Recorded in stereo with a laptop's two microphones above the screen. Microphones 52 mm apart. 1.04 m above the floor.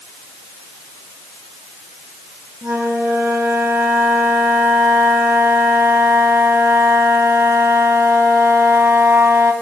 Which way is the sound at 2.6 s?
75° right (ahead or behind).